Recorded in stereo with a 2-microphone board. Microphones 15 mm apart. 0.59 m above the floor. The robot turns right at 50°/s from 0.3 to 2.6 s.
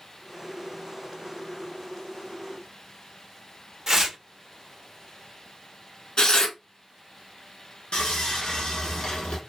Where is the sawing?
65° left (ahead or behind), 1.0 m.